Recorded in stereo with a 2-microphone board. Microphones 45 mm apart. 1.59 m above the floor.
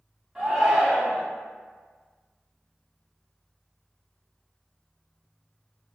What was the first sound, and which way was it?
A shout, 20° right (ahead or behind).